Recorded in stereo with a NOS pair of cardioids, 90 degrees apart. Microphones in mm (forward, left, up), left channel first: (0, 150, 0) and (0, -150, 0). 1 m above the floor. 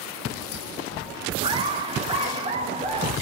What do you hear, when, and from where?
1.4 s laughter: 15° right, 1.7 m; by 3.1 s 20° right, 3 m